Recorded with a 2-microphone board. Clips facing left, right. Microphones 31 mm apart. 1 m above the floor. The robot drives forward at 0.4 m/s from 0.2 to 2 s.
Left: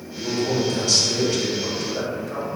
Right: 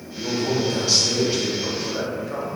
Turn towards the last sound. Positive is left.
turn(degrees=-10)  # may be behind; listen again after turning